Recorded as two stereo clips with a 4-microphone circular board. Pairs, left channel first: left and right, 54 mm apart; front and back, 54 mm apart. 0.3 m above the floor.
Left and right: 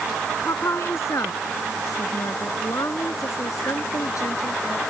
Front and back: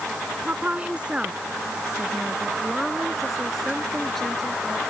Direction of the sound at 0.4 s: 120° left.